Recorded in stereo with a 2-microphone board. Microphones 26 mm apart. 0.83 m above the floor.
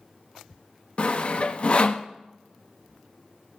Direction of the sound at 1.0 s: 45° left (ahead or behind).